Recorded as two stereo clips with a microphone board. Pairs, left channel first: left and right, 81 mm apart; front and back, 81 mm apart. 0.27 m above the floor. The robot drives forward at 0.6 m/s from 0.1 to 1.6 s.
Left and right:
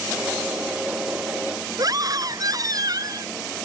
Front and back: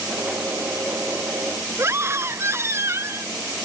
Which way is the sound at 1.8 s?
125° right.